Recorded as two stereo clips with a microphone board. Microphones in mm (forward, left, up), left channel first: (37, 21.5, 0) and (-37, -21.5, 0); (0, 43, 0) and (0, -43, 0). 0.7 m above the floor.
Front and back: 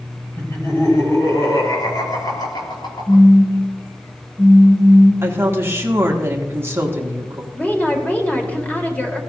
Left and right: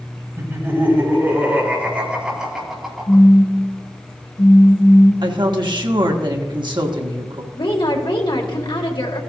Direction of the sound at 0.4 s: 25° right.